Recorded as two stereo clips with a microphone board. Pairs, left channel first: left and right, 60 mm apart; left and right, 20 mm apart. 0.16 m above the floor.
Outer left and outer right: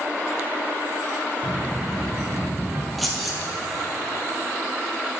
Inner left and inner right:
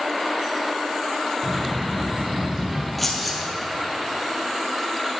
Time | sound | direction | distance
1.4 | a child speaking | 40° right (ahead or behind) | 2 m
3.0 | keys jangling | centre (ahead or behind) | 2.5 m